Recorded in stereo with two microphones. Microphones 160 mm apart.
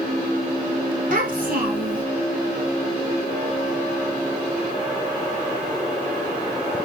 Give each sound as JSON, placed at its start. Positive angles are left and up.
{"t": 1.1, "sound": "a child speaking", "side_deg": -60, "distance_m": 2.5}